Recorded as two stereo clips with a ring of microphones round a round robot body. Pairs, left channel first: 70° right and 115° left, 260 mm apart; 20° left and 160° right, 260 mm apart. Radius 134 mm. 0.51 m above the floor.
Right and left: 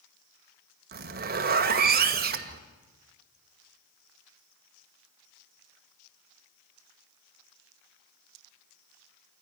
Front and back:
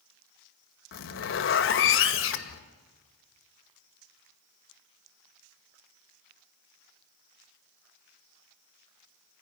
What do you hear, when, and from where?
0.9 s a zipper: 60° left, 1.7 m